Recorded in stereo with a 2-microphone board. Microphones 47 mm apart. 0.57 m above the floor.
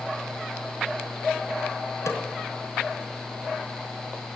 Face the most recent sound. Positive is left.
turn(degrees=85)